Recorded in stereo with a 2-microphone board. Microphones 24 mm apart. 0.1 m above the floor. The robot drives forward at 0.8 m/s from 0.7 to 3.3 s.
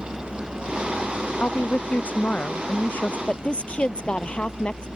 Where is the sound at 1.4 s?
75° left (ahead or behind); by 3.2 s 65° left (ahead or behind).